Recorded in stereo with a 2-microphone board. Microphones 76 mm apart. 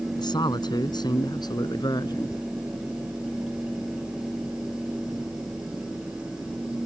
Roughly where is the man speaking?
Left.